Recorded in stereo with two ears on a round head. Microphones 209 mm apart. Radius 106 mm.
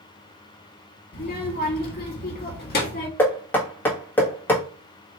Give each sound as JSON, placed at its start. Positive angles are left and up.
{"t": 1.1, "sound": "a child speaking", "side_deg": 40, "distance_m": 1.7}
{"t": 3.2, "sound": "knocking", "side_deg": 10, "distance_m": 1.5}